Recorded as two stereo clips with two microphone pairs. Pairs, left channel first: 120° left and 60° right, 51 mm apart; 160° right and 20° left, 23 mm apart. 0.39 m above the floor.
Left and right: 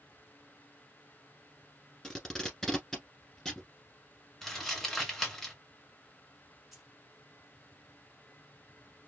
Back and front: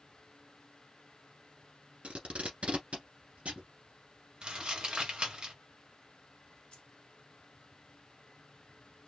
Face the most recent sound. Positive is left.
turn(degrees=-140)